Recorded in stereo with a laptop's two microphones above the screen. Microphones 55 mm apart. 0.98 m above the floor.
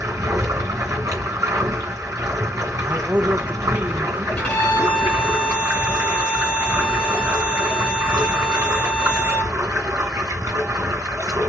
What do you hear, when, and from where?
0.0 s running water: 60° right (ahead or behind), 3 m
2.9 s a man speaking: 25° right (ahead or behind), 0.5 m
4.4 s a violin: 25° left (ahead or behind), 1.8 m